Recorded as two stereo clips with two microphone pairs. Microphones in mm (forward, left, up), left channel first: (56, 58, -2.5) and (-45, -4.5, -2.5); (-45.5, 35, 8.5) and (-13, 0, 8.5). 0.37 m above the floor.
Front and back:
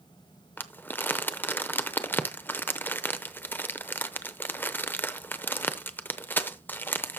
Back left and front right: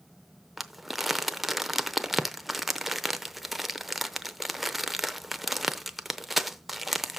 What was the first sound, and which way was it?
Crumpling, 35° left.